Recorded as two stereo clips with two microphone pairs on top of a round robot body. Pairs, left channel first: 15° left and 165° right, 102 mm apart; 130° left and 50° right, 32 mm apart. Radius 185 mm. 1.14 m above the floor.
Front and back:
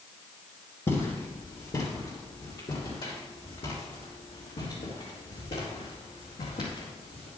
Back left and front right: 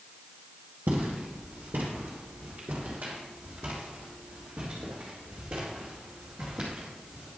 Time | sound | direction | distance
0.9 | footsteps | 45° right | 2.5 m